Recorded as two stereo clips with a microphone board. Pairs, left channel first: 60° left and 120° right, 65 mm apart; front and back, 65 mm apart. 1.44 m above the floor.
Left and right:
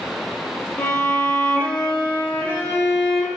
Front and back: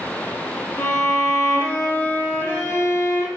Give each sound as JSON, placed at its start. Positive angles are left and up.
{"t": 0.8, "sound": "a violin", "azimuth_deg": 20, "distance_m": 0.7}